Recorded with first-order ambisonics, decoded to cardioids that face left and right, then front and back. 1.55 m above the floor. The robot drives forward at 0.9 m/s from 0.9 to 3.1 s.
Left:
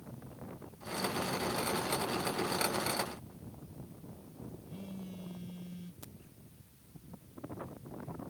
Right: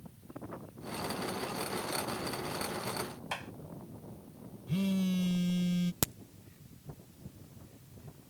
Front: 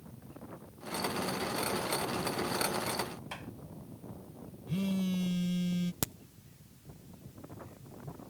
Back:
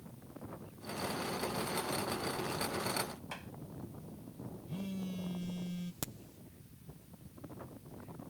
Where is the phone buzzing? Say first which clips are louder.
Right 13 dB, front 10 dB; 60° right.